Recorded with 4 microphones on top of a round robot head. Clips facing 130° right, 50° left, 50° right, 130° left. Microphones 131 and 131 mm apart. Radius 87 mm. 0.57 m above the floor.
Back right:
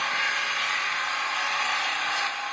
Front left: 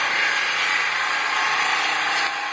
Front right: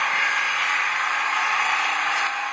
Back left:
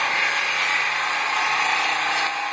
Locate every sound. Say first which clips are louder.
0.0 s an engine running: front left 4 dB, even; 75° left, 1.1 m